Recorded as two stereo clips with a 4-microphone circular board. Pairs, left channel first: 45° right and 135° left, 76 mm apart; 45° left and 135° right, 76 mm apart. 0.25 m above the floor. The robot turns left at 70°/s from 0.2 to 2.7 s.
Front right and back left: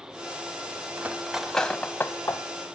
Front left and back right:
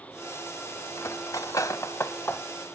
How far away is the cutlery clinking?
About 0.7 m.